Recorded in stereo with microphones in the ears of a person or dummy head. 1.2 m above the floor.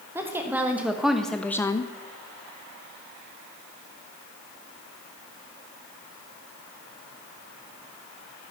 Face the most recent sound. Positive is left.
turn(degrees=25)  # may be behind; listen again after turning